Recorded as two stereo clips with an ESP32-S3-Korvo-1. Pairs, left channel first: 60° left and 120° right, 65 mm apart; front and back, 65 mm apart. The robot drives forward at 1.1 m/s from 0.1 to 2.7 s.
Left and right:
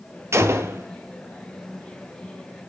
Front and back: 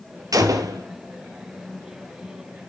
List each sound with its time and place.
0.3 s a gunshot: 165° right, 1.8 m